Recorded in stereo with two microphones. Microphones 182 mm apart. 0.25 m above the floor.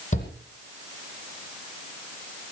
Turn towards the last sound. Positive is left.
turn(degrees=40)  # may be behind; listen again after turning